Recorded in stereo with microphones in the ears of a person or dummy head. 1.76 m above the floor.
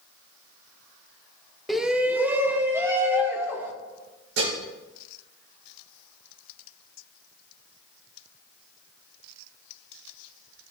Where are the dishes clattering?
75° right (ahead or behind), 4.5 m.